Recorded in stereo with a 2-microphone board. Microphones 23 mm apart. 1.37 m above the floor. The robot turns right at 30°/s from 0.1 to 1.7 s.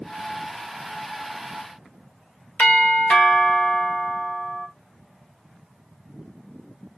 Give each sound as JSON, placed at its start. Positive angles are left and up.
{"t": 2.6, "sound": "a doorbell", "side_deg": 80, "distance_m": 1.4}